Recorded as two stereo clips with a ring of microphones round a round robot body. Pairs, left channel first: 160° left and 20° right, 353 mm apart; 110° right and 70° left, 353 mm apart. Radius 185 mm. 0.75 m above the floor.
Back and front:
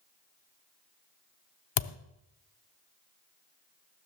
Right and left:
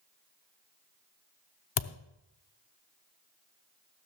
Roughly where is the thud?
Behind.